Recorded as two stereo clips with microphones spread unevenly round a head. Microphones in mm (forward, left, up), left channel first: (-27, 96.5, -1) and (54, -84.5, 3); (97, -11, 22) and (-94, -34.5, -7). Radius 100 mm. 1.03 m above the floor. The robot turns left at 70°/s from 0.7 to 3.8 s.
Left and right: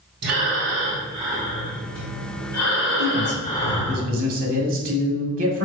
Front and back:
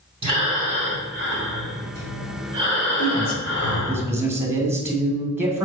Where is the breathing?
110° right, 3.5 m; by 4.0 s 30° left, 3.5 m.